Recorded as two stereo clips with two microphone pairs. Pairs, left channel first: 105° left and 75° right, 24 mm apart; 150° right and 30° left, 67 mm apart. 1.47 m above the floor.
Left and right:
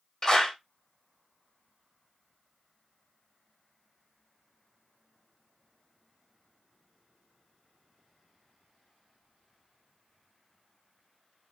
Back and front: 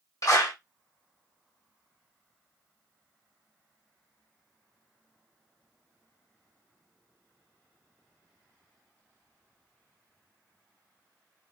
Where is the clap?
170° left, 2.0 m.